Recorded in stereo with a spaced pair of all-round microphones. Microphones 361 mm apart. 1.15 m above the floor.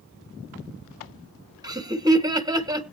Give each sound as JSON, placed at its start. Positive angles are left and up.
{"t": 1.6, "sound": "laughter", "side_deg": -10, "distance_m": 1.3}